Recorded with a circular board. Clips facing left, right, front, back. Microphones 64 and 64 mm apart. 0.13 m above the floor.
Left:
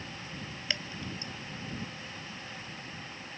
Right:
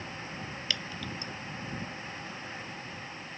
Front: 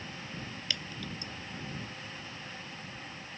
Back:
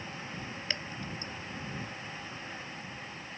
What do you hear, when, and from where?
0.7 s dripping: 145° left